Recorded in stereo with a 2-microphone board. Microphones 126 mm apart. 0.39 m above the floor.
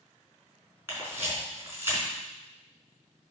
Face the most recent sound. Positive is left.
turn(degrees=-20)  # may be behind; listen again after turning